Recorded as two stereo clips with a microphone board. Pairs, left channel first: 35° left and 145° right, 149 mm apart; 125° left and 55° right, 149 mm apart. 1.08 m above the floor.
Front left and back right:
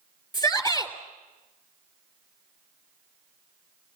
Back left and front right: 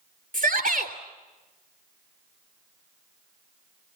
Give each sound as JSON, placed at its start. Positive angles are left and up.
{"t": 0.3, "sound": "a shout", "azimuth_deg": -35, "distance_m": 3.5}